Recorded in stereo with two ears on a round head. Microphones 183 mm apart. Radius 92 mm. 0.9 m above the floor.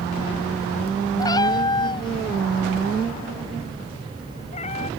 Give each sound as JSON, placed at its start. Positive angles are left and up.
{"t": 1.2, "sound": "a cat meowing", "side_deg": 20}